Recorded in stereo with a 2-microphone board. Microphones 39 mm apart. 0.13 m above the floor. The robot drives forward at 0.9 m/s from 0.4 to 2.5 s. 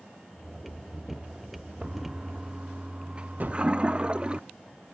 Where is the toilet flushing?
30° right (ahead or behind); by 4.4 s 25° right (ahead or behind).